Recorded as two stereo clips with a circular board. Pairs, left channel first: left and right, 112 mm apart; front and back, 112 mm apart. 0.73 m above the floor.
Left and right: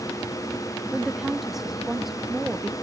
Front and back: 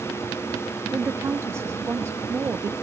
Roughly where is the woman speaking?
Behind.